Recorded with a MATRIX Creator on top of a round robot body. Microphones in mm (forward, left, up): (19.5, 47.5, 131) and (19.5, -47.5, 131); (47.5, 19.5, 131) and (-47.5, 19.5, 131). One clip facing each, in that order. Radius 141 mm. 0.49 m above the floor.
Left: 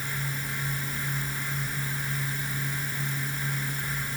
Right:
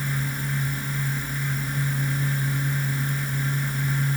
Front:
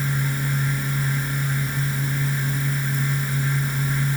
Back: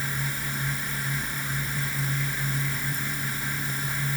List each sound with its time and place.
Only background noise.